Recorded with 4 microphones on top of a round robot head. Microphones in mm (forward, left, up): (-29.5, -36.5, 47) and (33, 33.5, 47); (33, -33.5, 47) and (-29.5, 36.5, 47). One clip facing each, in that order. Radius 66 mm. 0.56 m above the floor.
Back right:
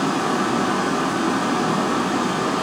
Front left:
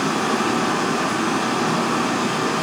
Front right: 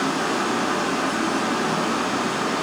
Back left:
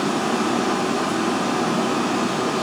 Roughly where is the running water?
Behind left.